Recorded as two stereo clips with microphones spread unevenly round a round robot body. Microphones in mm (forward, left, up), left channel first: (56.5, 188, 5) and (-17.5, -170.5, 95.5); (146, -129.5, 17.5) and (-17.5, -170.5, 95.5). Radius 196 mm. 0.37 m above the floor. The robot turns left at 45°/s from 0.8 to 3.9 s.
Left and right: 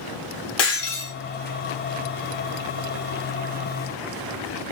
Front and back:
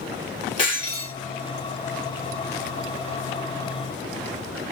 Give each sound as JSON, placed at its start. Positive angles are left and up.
{"t": 0.6, "sound": "breaking glass", "azimuth_deg": 70, "distance_m": 2.0}